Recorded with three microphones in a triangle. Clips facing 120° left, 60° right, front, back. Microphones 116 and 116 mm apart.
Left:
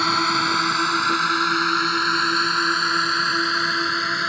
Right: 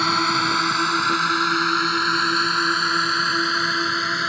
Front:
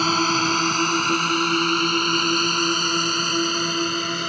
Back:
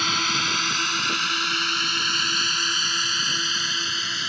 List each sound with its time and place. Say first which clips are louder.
0.0 s a drone: even, front 7 dB; 30° left